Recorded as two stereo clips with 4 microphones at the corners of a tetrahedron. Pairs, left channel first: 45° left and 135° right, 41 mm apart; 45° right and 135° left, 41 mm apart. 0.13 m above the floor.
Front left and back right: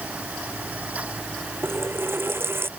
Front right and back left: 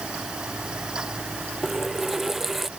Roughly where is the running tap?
Behind right.